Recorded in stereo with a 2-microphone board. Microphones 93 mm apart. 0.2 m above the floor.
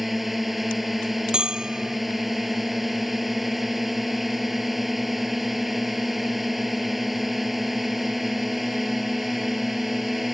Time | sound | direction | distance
0.0 | a drone | centre (ahead or behind) | ?
1.3 | a bell | 10° right (ahead or behind) | ?